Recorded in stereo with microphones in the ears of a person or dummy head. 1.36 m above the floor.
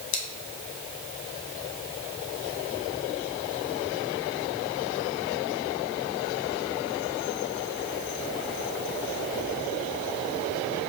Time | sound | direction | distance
0.1 | scissors | 70° left (ahead or behind) | 1.5 m